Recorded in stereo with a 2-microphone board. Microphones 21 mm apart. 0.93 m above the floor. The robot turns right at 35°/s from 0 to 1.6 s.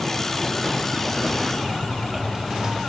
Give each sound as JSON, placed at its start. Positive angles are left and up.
{"t": 1.6, "sound": "chewing", "side_deg": -30, "distance_m": 1.7}